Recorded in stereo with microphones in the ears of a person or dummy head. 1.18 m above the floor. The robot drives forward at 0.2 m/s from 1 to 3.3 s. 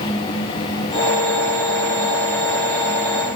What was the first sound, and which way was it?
Only background noise.